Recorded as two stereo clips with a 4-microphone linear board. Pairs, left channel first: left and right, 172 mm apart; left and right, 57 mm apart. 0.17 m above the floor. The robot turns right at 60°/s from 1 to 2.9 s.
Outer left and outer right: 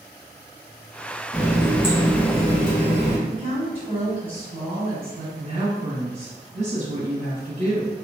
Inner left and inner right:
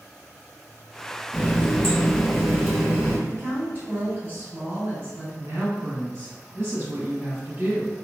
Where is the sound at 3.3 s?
30° right (ahead or behind), 1.9 m.